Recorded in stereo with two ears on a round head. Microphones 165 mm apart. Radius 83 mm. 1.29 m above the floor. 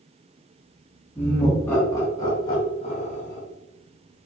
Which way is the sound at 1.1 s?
10° left (ahead or behind).